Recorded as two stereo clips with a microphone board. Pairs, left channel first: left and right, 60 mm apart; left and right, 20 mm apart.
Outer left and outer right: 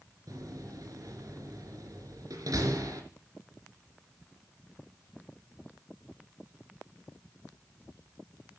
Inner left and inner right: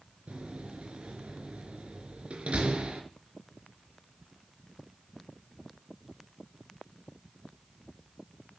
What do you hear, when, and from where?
0.3 s a door slam: 75° right (ahead or behind), 3.5 m